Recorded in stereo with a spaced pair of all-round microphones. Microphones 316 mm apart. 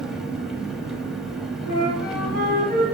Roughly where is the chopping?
No chopping in this recording.